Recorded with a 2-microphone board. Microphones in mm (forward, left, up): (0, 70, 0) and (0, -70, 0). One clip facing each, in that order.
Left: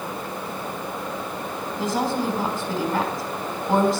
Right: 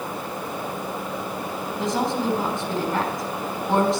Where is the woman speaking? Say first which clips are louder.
Even; 5° left (ahead or behind), 4 m.